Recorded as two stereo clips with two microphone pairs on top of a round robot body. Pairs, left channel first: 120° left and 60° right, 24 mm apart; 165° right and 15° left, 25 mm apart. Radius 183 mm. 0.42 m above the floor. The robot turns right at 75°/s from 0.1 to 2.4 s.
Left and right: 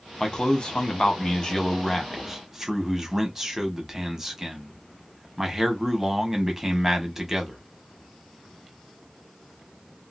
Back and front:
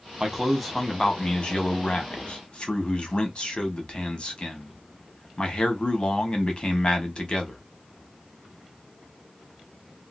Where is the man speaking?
65° left, 1.4 m; by 7.6 s 130° right, 1.4 m.